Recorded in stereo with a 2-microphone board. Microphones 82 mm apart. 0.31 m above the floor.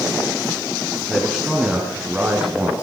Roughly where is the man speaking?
Centre.